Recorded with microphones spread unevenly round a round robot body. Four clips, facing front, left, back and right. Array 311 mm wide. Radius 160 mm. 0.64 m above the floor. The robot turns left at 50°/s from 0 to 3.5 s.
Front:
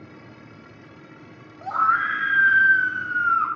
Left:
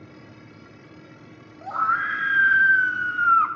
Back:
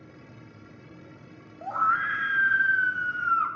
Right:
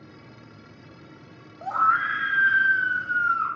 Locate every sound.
1.6 s a scream: 155° right, 0.8 m; by 3.5 s 110° left, 0.8 m